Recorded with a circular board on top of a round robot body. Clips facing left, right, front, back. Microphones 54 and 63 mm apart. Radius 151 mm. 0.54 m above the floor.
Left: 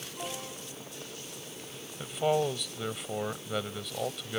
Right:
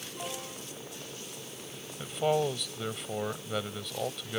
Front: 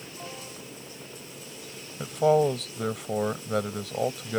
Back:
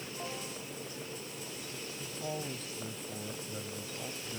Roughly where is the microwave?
No microwave in this recording.